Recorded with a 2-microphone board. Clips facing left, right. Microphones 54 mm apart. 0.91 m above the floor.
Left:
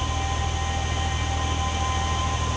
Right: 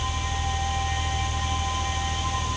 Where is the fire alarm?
I don't hear a fire alarm.